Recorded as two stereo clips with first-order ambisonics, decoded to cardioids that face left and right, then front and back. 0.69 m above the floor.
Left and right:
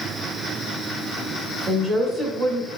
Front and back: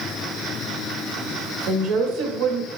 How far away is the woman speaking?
About 1.7 m.